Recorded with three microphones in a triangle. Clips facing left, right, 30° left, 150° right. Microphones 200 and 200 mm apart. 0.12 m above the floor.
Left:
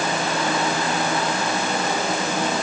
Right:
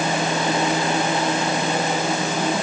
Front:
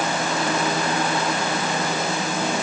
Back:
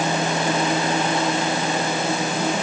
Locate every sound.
Only background noise.